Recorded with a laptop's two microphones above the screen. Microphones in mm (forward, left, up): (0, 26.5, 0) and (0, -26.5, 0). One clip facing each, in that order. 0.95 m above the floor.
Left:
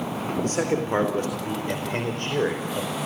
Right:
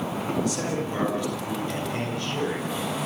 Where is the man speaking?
40° left (ahead or behind), 4 m.